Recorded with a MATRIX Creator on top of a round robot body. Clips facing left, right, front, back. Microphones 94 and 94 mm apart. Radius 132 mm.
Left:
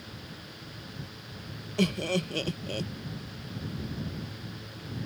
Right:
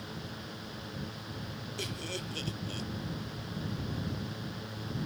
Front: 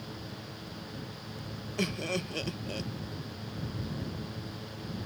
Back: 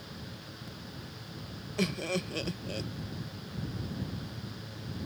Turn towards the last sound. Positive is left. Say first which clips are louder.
# left 14 dB, back 1 dB
turn(degrees=90)